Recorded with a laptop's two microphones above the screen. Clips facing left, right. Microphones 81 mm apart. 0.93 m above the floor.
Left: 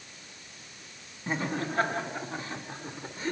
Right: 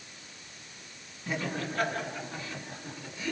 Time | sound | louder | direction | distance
1.3 | laughter | left 2 dB | 30° left (ahead or behind) | 7.5 m